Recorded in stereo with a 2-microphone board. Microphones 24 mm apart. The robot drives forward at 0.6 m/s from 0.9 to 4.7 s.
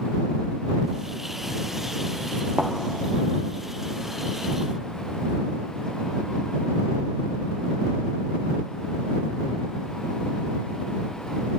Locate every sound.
2.6 s a thud: 70° right (ahead or behind), 1.6 m; by 2.7 s 75° right (ahead or behind), 1.5 m